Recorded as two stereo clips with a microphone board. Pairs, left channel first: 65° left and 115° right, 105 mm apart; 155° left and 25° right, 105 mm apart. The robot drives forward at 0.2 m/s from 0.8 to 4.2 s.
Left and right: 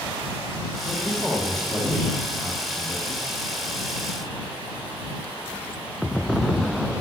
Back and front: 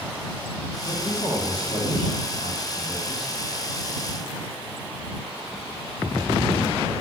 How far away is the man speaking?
About 2.0 m.